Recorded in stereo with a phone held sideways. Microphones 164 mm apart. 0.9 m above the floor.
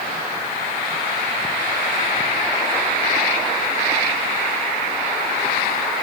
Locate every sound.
Only background noise.